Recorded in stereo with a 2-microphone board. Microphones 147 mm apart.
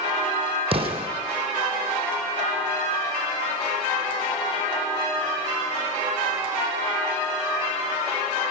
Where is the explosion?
40° right (ahead or behind), 5 m.